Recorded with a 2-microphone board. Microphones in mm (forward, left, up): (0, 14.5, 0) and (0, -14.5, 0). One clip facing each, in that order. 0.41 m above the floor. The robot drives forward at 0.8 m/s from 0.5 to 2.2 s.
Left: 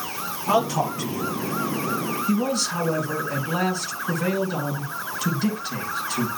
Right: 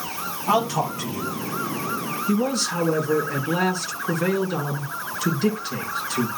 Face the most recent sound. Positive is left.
turn(degrees=-10)  # may be behind; listen again after turning